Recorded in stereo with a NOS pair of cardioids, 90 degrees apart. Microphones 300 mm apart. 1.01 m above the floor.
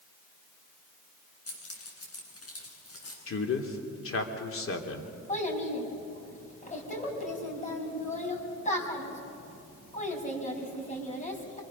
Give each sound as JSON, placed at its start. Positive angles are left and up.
{"t": 1.5, "sound": "keys jangling", "azimuth_deg": 50, "distance_m": 7.5}
{"t": 3.3, "sound": "a man speaking", "azimuth_deg": 45, "distance_m": 3.0}
{"t": 5.3, "sound": "a child speaking", "azimuth_deg": 25, "distance_m": 6.0}